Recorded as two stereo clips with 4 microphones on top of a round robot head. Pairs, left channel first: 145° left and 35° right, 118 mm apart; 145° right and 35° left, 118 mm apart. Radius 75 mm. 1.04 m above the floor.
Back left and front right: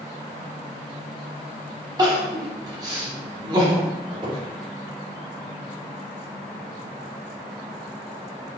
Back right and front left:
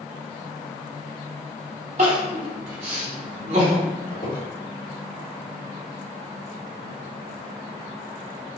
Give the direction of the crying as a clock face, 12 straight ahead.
12 o'clock.